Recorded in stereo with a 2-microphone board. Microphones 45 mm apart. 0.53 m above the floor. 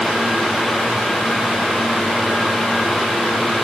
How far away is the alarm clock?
No alarm clock in this recording.